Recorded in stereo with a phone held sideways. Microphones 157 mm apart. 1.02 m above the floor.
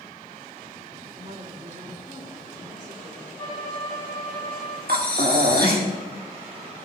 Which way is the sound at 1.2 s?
50° right (ahead or behind).